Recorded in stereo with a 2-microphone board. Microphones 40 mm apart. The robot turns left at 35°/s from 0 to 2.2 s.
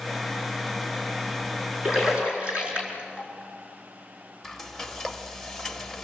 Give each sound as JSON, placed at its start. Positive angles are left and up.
{"t": 1.8, "sound": "a splash", "side_deg": -10, "distance_m": 4.5}
{"t": 4.4, "sound": "frying", "side_deg": 5, "distance_m": 1.0}